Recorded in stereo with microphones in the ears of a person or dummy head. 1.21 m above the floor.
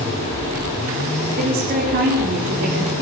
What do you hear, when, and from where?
1.4 s a woman speaking: 50° right (ahead or behind), 4 m